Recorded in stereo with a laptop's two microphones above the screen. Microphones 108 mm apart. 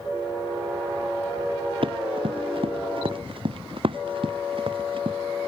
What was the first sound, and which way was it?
Running footsteps, 55° right (ahead or behind).